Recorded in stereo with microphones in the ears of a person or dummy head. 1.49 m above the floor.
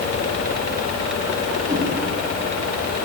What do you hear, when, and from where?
1.7 s a whoosh: 20° right (ahead or behind), 6.5 m